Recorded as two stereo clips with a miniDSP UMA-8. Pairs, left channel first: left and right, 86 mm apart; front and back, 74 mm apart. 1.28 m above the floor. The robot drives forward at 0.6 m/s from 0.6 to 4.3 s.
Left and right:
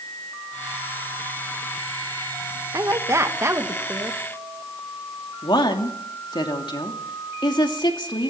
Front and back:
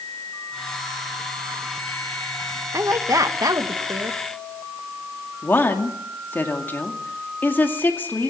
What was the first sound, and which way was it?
A woman speaking, 135° right.